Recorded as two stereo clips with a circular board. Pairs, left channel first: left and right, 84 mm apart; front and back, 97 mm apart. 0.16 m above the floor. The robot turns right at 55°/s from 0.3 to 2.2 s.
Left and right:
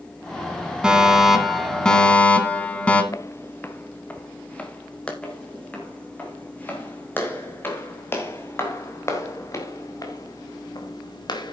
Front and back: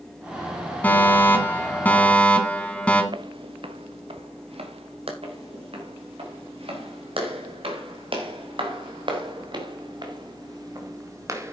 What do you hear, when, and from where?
0.8 s a fire alarm: 30° right, 2 m; by 3.0 s 45° left, 2 m
3.1 s footsteps: 140° left, 0.9 m; by 5.1 s 165° left, 3.5 m
5.2 s footsteps: 165° left, 6 m; by 11.5 s 120° left, 3 m